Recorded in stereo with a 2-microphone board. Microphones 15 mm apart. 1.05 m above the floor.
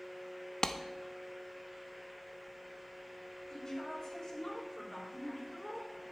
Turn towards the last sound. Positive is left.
turn(degrees=50)  # may be behind; listen again after turning